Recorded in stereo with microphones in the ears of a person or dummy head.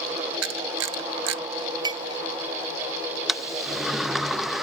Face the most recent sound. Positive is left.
turn(degrees=-5)  # may be behind; listen again after turning